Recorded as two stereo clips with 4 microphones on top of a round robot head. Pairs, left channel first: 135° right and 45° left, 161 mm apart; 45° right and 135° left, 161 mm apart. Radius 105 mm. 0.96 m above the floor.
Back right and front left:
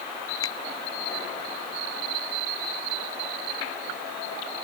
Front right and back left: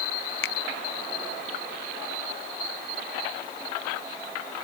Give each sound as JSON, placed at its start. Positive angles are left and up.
{"t": 0.4, "sound": "a finger snap", "azimuth_deg": -65}